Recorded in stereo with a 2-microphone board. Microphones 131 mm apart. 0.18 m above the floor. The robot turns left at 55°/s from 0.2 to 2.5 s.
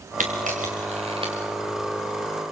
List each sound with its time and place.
0.2 s a camera shutter: 80° right, 4 m; by 1.3 s 35° right (ahead or behind), 4 m